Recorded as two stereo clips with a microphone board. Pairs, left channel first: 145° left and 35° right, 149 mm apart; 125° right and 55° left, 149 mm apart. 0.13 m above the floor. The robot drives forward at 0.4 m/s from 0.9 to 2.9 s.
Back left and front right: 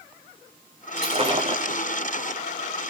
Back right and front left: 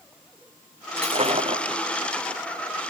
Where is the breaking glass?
10° left, 4.5 m.